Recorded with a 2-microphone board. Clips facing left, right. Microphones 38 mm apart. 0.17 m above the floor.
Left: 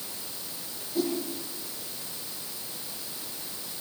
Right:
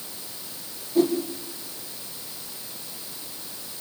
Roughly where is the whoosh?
Centre.